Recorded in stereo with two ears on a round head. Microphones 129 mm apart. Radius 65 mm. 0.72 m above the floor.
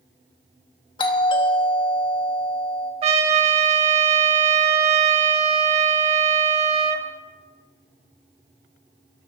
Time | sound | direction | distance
1.0 | a doorbell | 35° left (ahead or behind) | 1.1 m
3.0 | a trumpet | 40° right (ahead or behind) | 1.0 m